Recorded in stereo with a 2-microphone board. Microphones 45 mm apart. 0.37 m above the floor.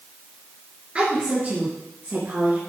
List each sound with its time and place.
0.9 s a woman speaking: 30° right (ahead or behind), 5 m; by 2.6 s 45° right (ahead or behind), 5 m